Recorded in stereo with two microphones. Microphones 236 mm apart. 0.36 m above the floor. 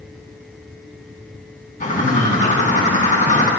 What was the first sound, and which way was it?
A bird, 35° left (ahead or behind).